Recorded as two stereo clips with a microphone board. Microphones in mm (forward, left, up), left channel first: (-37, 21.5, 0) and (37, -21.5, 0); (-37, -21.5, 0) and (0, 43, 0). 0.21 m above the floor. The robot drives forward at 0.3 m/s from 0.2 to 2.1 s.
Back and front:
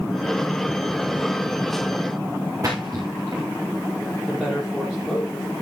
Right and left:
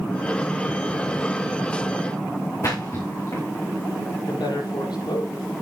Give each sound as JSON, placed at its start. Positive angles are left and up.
{"t": 2.6, "sound": "a splash", "azimuth_deg": -80, "distance_m": 4.5}
{"t": 4.2, "sound": "a woman speaking", "azimuth_deg": -115, "distance_m": 7.5}